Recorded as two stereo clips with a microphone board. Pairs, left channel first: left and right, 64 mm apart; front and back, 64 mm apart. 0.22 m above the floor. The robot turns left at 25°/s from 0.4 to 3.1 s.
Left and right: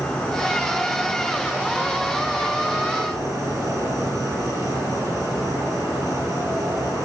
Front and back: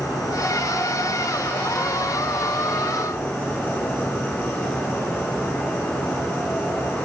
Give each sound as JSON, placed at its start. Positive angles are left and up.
{"t": 0.0, "sound": "an insect", "azimuth_deg": 15, "distance_m": 5.5}